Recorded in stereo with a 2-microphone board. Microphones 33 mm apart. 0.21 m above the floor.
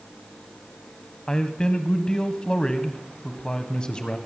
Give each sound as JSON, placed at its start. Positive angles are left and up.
{"t": 1.3, "sound": "a man speaking", "side_deg": 25, "distance_m": 1.1}